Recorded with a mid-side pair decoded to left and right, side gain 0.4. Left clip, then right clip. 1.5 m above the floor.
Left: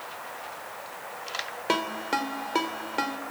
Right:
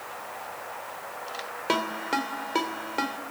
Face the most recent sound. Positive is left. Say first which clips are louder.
# right 1 dB
turn(degrees=5)